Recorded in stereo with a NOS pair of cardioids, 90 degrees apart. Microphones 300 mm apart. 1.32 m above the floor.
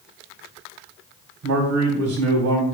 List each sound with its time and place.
1.4 s a man speaking: 60° right, 1.4 m